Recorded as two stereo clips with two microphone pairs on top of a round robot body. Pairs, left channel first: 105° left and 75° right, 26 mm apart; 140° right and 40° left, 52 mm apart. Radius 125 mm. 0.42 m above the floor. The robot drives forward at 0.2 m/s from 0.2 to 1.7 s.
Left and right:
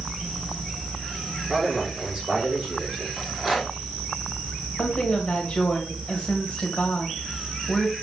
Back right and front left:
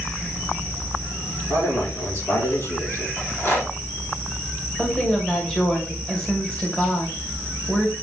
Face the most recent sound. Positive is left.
turn(degrees=150)